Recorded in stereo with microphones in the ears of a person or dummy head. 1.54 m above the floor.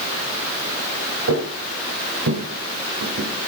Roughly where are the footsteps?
Right.